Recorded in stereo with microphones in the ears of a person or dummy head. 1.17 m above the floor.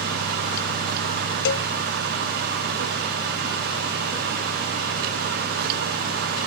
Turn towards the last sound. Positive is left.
turn(degrees=65)  # may be behind; listen again after turning